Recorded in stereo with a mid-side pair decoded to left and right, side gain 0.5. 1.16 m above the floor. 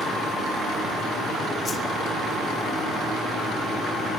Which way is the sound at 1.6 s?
35° left.